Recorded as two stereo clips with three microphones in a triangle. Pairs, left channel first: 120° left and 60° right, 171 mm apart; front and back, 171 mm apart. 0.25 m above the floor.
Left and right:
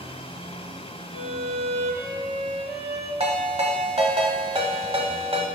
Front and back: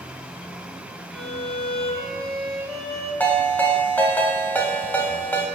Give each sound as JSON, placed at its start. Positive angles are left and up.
{"t": 1.1, "sound": "a violin", "azimuth_deg": -85, "distance_m": 2.0}
{"t": 3.2, "sound": "a ringtone", "azimuth_deg": -75, "distance_m": 1.0}